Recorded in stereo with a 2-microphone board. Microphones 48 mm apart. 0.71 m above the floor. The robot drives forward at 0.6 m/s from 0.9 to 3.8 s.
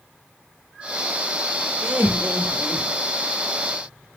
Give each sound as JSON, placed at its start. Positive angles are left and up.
{"t": 1.8, "sound": "laughter", "side_deg": -50, "distance_m": 1.0}